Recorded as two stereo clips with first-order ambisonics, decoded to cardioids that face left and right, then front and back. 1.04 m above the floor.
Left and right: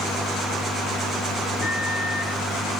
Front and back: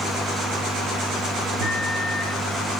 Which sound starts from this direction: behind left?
A microwave, at 1.6 s.